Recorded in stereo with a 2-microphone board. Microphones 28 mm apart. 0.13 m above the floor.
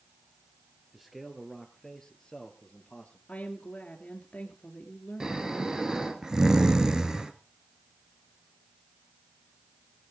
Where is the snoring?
25° right (ahead or behind), 1.3 m.